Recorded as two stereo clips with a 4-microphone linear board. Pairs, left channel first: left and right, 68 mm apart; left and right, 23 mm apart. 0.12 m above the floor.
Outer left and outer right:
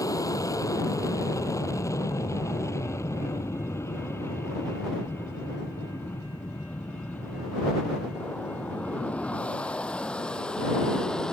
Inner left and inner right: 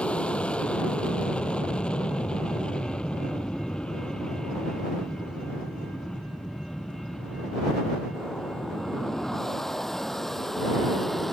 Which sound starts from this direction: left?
An aircraft, at 0.0 s.